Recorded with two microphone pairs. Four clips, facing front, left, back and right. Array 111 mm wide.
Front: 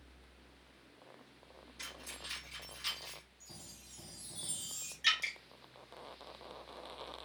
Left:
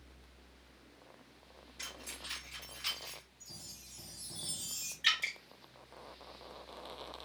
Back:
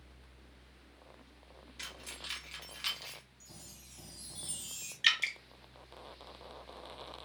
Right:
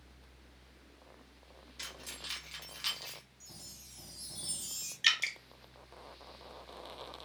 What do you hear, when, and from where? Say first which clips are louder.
1.8 s keys jangling: even, back 1 dB; 150° right, 1.8 m; by 3.2 s 165° right, 1.1 m
3.4 s a chime: even, even; 95° left, 1.2 m
5.0 s dripping: right 2 dB, back 2 dB; 155° right, 0.6 m